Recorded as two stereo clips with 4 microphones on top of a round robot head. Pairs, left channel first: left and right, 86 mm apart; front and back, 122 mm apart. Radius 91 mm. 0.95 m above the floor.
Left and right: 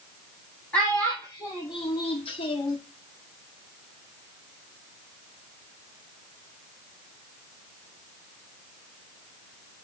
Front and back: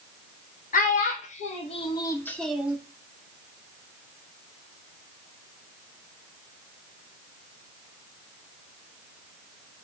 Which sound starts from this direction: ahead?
A child speaking, at 0.7 s.